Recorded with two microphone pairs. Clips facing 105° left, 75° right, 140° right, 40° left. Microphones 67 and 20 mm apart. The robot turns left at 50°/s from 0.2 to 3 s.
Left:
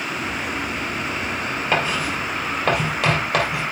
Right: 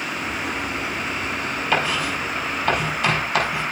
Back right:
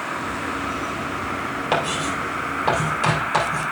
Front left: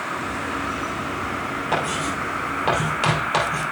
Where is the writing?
165° left, 3.5 m; by 3.6 s 100° left, 3.5 m.